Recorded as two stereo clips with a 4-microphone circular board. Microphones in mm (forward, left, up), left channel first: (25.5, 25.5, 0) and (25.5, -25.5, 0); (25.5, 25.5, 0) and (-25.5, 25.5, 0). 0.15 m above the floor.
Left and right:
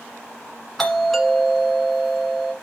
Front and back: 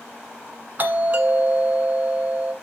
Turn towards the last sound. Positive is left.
turn(degrees=175)